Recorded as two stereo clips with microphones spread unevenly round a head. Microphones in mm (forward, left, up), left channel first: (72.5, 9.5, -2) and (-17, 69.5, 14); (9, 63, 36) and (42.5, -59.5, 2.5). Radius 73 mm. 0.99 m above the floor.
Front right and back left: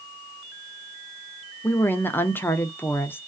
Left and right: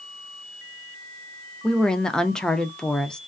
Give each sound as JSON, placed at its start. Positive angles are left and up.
{"t": 1.6, "sound": "a woman speaking", "azimuth_deg": 0, "distance_m": 0.5}